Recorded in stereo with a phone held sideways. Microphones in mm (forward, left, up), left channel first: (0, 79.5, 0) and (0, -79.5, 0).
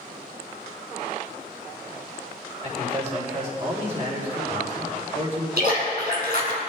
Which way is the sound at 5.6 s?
75° right (ahead or behind).